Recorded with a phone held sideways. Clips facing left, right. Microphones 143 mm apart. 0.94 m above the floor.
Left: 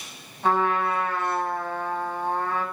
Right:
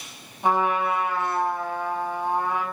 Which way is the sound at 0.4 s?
15° right (ahead or behind).